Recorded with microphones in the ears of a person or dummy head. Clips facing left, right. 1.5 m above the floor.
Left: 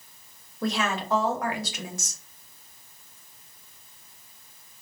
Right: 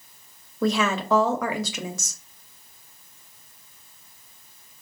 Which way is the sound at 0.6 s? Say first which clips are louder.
Right 5 dB; 75° right (ahead or behind).